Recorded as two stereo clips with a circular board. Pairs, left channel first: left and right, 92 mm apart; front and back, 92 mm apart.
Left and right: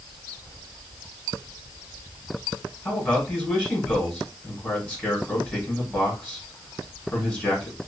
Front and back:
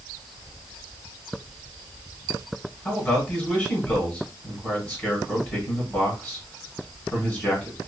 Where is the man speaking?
50° left, 1.7 m.